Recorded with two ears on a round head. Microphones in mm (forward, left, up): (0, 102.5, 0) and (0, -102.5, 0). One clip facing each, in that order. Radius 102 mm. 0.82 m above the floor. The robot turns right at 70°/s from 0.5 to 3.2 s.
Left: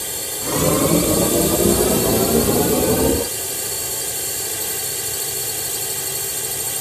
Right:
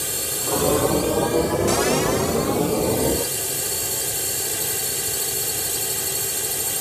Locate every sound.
0.0 s a drone: 5° right; by 6.8 s straight behind